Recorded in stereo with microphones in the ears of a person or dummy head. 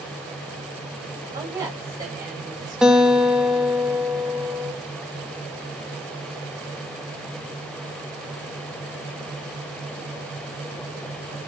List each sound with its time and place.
1.3 s a woman speaking: 15° right (ahead or behind), 7 m; by 3.2 s 25° right (ahead or behind), 7 m
2.8 s a guitar: 5° right (ahead or behind), 1.6 m